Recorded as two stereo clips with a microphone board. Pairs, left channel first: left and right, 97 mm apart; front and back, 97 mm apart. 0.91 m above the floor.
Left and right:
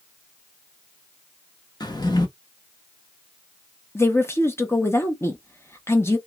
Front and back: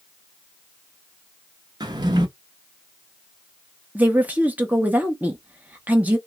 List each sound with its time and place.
1.8 s a drawer: 135° left, 0.8 m
4.0 s a woman speaking: 120° left, 0.9 m